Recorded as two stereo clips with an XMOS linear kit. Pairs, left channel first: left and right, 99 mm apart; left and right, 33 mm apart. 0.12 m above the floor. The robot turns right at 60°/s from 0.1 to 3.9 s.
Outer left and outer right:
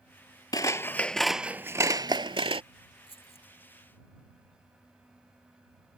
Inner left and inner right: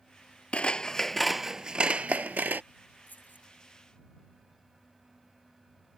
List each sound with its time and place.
0.5 s scissors: 135° left; by 2.6 s 100° right
3.1 s keys jangling: 60° left (ahead or behind); by 3.5 s 70° left (ahead or behind)